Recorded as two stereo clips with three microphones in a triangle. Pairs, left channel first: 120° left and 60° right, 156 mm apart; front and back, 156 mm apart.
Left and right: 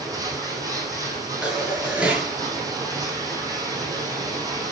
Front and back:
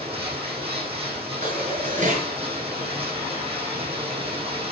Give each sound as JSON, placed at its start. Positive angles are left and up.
{"t": 0.0, "sound": "running water", "azimuth_deg": -125, "distance_m": 8.0}
{"t": 1.4, "sound": "dishes clattering", "azimuth_deg": -145, "distance_m": 6.0}